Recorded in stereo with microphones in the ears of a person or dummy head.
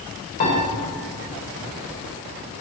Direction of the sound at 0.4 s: 35° left (ahead or behind).